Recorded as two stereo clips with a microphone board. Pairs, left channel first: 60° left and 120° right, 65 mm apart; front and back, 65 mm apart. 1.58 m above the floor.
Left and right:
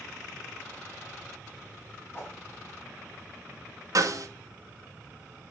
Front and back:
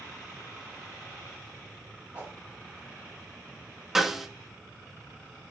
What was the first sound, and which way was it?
A whoosh, 115° left.